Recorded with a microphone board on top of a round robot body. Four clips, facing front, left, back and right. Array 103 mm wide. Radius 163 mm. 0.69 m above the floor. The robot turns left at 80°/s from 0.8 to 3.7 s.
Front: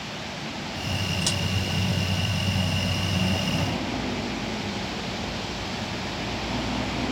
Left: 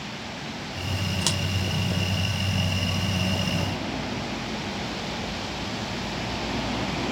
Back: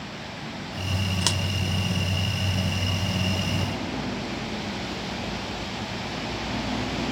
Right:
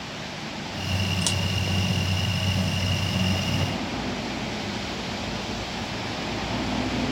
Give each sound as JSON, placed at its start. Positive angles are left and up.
{"t": 1.2, "sound": "scissors", "azimuth_deg": 170, "distance_m": 0.5}